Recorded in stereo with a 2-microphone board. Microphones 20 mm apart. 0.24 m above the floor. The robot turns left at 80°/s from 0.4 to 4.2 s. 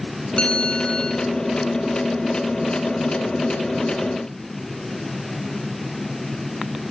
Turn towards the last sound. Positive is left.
turn(degrees=130)